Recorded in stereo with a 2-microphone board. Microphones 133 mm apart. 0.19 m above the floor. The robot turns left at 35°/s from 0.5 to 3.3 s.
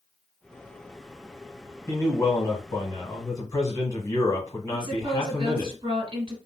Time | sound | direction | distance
1.9 | a man speaking | 25° left (ahead or behind) | 1.4 m
4.7 | a woman speaking | 35° right (ahead or behind) | 2 m